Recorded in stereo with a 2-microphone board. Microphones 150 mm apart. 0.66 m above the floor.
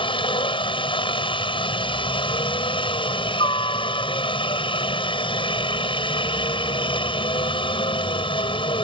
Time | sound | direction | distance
0.0 | a helicopter | 35° left (ahead or behind) | ?